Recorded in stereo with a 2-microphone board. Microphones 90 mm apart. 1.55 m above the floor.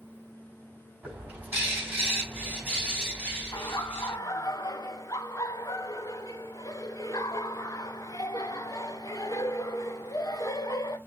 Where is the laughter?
40° left (ahead or behind), 0.7 m.